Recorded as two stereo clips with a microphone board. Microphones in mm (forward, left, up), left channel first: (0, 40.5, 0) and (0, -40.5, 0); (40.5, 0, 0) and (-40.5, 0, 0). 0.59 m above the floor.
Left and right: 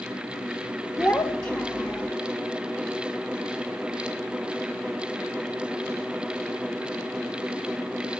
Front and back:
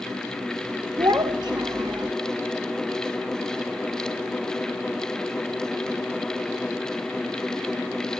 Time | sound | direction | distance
1.0 | a child speaking | 140° left | 1.6 m